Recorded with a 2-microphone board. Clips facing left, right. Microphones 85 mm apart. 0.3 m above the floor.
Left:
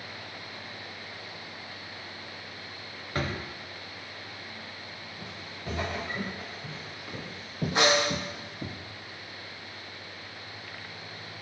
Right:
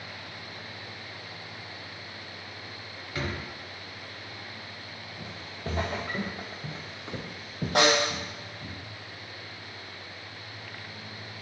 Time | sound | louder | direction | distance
3.1 | a drawer | left 2 dB | 45° left (ahead or behind) | 0.9 m
5.2 | footsteps | right 5 dB | 50° right (ahead or behind) | 2.5 m
7.8 | a snare drum | right 1 dB | 65° right (ahead or behind) | 3 m